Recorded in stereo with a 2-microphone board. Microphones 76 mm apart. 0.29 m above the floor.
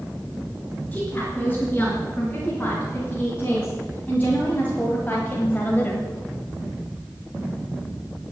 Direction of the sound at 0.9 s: 20° left (ahead or behind).